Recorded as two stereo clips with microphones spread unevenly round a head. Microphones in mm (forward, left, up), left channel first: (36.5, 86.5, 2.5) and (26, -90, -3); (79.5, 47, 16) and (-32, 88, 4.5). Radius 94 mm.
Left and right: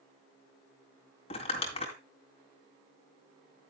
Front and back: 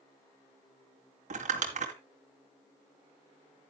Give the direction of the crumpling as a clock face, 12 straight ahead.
7 o'clock.